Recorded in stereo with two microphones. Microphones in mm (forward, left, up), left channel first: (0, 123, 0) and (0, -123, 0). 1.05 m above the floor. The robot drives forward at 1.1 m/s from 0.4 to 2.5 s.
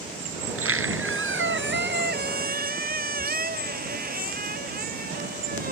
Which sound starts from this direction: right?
A squeak, at 0.4 s.